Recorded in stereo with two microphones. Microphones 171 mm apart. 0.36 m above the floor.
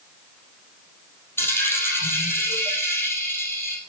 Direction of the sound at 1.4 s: 15° left (ahead or behind).